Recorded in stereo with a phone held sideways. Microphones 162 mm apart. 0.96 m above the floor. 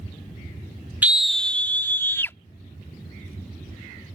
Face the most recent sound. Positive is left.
turn(degrees=15)  # may be behind; listen again after turning